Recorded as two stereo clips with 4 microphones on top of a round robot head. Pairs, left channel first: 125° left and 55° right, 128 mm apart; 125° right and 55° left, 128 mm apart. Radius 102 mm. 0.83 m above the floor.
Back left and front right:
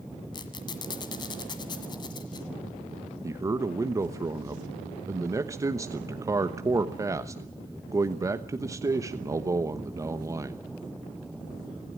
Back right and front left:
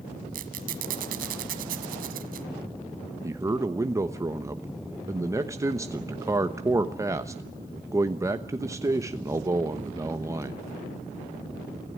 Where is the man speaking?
Straight ahead, 1.1 m.